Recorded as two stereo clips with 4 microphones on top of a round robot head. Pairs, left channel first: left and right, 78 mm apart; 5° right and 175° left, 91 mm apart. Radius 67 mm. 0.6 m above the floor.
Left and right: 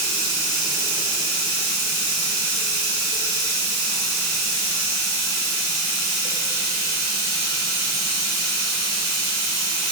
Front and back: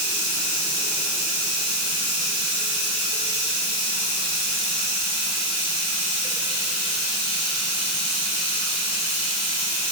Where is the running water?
75° left, 1.6 m.